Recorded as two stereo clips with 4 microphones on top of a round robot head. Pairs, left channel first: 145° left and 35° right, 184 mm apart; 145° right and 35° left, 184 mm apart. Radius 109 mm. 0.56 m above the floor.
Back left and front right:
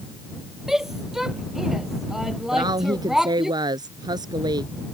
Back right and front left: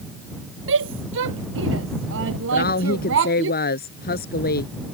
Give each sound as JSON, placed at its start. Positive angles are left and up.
{"t": 0.7, "sound": "a shout", "azimuth_deg": 55}
{"t": 2.5, "sound": "a woman speaking", "azimuth_deg": -105}